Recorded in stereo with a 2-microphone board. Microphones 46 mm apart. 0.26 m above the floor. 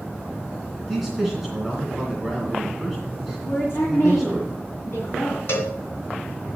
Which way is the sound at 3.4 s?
55° left (ahead or behind).